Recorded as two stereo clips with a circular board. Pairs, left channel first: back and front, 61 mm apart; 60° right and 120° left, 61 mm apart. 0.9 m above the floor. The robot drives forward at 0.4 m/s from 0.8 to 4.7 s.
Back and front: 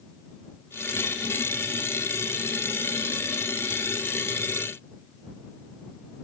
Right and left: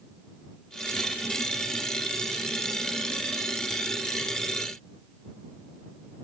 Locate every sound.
Only background noise.